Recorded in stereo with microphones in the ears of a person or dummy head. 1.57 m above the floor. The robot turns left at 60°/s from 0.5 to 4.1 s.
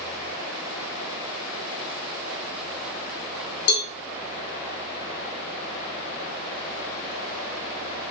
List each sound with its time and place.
3.7 s a cowbell: 60° left (ahead or behind), 0.5 m; by 3.9 s 70° left (ahead or behind), 0.5 m